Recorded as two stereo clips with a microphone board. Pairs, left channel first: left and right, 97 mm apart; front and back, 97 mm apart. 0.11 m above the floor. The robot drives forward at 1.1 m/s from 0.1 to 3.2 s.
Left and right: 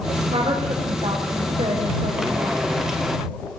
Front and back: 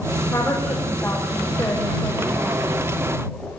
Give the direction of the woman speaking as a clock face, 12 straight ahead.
2 o'clock.